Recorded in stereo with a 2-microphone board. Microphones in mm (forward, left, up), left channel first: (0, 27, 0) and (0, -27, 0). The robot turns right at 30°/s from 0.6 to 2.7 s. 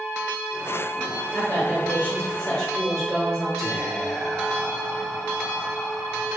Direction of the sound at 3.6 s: 5° left (ahead or behind).